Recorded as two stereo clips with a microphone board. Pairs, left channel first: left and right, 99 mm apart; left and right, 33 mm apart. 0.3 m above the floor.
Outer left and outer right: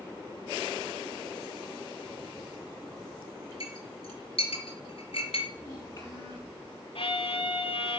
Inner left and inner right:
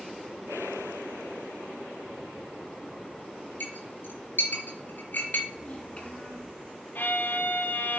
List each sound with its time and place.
3.6 s a clink: 70° left (ahead or behind), 3.5 m
5.5 s a child speaking: 30° left (ahead or behind), 5 m
7.0 s a violin: 70° left (ahead or behind), 0.9 m